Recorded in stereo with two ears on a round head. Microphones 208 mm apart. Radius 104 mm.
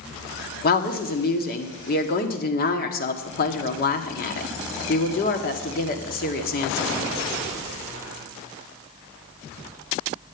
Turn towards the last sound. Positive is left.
turn(degrees=40)  # may be behind; listen again after turning